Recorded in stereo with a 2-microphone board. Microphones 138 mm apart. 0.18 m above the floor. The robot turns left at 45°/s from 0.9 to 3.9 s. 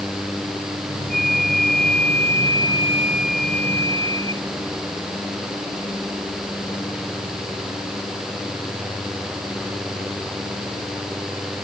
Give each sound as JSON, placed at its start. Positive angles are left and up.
{"t": 1.1, "sound": "a flute", "azimuth_deg": -80}